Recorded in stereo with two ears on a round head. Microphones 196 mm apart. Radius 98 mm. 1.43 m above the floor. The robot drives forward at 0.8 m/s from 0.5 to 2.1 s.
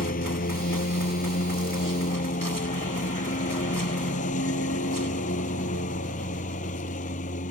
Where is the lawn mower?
40° left (ahead or behind); by 7.5 s 35° left (ahead or behind).